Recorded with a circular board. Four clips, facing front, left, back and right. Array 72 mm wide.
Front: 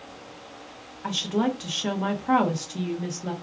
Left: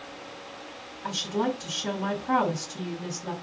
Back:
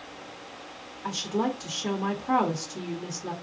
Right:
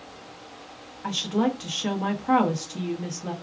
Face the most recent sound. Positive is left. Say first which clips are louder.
# right 3 dB, front 3 dB
turn(degrees=-35)